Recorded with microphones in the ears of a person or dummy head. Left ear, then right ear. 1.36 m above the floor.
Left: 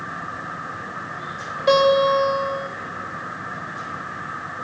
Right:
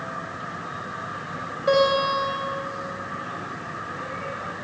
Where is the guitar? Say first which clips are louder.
Left 4 dB; 25° left (ahead or behind), 5.5 m.